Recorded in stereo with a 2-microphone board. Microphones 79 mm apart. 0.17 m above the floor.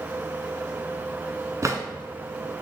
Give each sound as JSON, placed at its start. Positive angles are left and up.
{"t": 1.6, "sound": "a drawer", "side_deg": -45, "distance_m": 0.6}